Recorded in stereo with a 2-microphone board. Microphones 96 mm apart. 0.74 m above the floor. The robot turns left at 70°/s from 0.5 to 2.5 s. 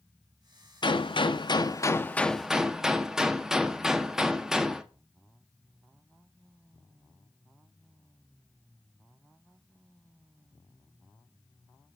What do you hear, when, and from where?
0.8 s a gunshot: 110° left, 1.0 m; by 4.8 s 5° right, 1.0 m